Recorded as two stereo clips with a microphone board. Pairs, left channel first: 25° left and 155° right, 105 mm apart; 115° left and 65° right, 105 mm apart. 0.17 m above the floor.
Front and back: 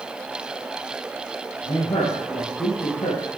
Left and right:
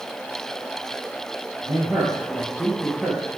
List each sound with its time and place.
1.6 s a man speaking: 10° left, 5 m; by 3.3 s 25° left, 5.5 m